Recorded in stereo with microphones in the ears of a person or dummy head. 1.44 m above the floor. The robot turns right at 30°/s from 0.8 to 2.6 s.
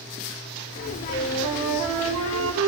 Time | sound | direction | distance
1.1 | a flute | 130° right | 5 m